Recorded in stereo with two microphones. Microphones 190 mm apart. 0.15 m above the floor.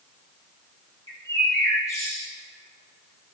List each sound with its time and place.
1.1 s a bird: 15° left (ahead or behind), 2.5 m